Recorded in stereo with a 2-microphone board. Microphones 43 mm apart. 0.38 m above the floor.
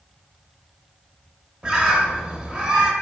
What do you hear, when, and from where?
1.6 s a bird: 20° right (ahead or behind), 0.6 m